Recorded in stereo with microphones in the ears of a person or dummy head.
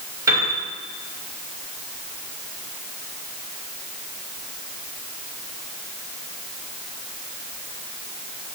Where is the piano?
25° right (ahead or behind), 2 m.